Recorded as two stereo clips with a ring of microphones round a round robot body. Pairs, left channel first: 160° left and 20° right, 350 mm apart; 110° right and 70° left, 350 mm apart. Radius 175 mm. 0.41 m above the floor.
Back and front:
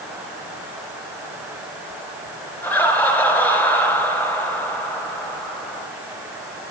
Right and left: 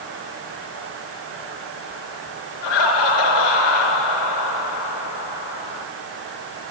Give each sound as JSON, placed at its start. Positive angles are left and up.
{"t": 2.6, "sound": "laughter", "azimuth_deg": -120, "distance_m": 5.5}